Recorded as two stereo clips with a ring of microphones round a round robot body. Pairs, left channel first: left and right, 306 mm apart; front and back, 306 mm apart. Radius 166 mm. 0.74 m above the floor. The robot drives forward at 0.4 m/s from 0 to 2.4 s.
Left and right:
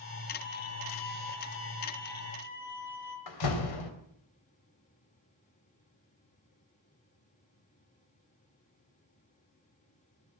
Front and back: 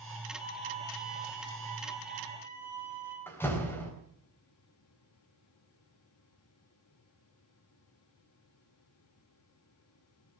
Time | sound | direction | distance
0.4 | a violin | 75° left | 7 m
3.3 | a door slam | 85° left | 3.5 m